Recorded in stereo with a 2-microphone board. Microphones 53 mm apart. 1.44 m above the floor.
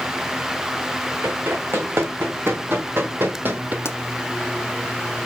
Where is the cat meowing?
No cat meowing in this recording.